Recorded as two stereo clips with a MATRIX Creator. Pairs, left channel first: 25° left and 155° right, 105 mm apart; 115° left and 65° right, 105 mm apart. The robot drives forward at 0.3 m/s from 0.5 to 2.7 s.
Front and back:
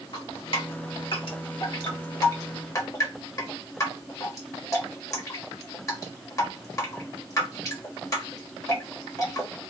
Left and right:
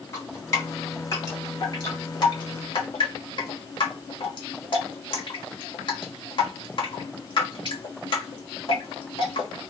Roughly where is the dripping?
Ahead left.